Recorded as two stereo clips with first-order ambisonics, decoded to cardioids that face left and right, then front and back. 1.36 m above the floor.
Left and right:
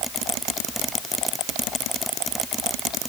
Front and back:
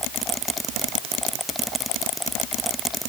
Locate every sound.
Only background noise.